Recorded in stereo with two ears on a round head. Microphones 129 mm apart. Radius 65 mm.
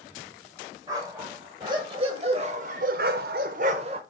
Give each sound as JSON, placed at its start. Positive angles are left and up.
{"t": 0.9, "sound": "a dog barking", "side_deg": -25, "distance_m": 1.6}